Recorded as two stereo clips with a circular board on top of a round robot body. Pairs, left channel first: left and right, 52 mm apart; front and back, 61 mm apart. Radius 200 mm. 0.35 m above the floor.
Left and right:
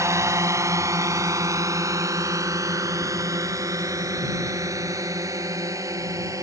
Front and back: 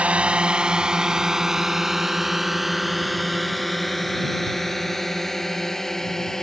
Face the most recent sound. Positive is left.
turn(degrees=-85)